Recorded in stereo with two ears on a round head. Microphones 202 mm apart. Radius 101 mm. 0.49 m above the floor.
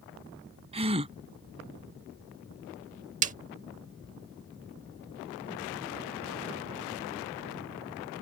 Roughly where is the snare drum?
Right.